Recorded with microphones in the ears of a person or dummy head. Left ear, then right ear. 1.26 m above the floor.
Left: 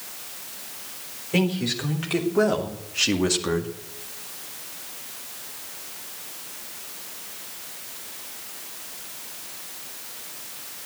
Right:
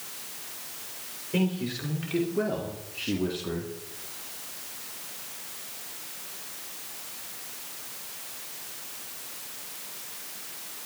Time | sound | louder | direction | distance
1.3 | a man speaking | left 6 dB | 30° left (ahead or behind) | 3.5 m